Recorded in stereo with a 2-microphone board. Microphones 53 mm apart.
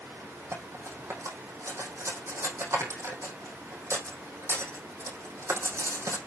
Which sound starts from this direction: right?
Cutlery clinking, at 0.5 s.